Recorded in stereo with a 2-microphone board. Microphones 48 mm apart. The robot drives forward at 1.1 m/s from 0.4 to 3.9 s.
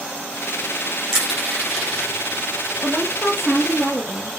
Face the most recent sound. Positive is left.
turn(degrees=-5)  # may be behind; listen again after turning